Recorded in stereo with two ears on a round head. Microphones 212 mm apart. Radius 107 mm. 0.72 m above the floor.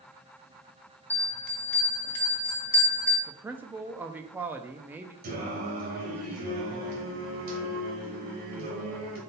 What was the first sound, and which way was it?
A bell, 10° left (ahead or behind).